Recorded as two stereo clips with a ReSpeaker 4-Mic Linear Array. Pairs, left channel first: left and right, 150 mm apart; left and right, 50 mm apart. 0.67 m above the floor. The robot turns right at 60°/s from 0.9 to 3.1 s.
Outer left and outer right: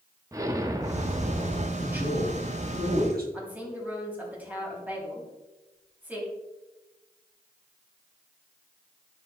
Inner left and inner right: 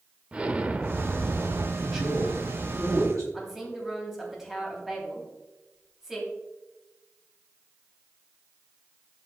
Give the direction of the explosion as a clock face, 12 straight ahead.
5 o'clock.